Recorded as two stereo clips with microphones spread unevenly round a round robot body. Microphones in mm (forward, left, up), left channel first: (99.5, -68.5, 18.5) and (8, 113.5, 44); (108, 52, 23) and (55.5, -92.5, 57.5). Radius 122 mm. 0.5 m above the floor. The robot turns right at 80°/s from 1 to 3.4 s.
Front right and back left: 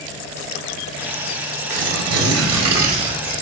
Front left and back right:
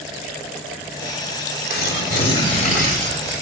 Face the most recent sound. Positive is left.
turn(degrees=-145)